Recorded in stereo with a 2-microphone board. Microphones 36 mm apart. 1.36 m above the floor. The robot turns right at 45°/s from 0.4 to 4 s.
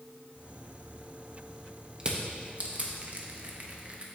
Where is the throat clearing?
I don't hear throat clearing.